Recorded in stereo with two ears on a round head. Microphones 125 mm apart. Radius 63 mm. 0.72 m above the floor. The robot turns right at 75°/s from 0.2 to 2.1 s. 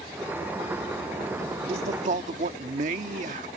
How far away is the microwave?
I don't hear a microwave.